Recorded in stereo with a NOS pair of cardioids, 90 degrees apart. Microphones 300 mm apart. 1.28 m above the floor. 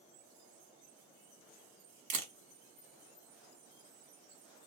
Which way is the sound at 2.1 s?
65° right.